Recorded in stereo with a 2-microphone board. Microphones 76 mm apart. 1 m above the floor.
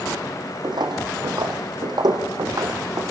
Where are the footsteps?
70° right (ahead or behind), 3 m; by 3.0 s 55° right (ahead or behind), 4 m.